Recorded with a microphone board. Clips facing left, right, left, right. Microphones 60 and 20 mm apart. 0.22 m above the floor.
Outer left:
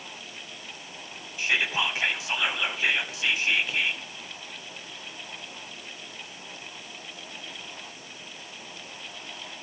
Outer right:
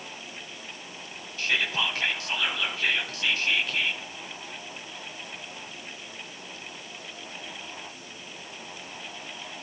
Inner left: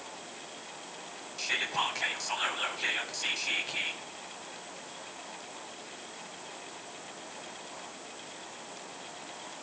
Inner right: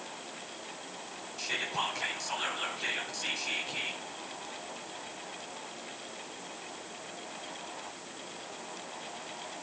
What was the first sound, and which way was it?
Whispering, 15° left (ahead or behind).